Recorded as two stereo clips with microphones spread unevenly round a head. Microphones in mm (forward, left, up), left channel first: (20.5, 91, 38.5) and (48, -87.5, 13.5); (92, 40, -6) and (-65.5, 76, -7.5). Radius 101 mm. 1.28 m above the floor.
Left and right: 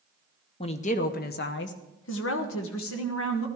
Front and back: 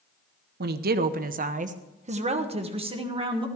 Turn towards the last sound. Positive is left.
turn(degrees=110)